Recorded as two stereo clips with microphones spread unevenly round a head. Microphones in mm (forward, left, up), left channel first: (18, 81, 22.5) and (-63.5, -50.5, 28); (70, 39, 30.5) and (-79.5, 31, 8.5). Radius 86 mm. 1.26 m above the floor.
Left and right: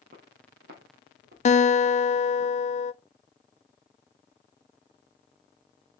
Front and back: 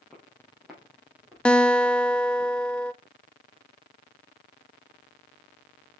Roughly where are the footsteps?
Right.